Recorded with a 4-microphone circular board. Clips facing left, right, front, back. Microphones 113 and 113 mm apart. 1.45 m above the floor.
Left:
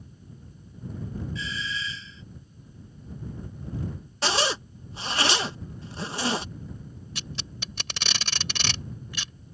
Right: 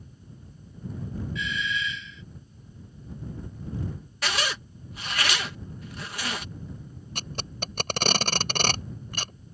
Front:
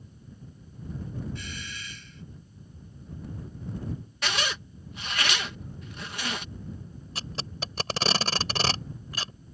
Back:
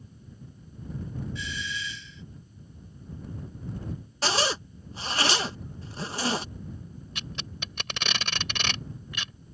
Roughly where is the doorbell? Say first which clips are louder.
Right 3 dB, back 5 dB; ahead left.